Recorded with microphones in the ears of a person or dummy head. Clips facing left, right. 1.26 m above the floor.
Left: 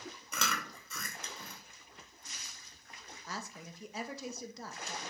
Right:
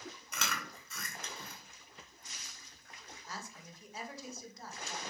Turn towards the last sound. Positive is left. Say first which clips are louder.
# left 4 dB
turn(degrees=55)  # may be behind; listen again after turning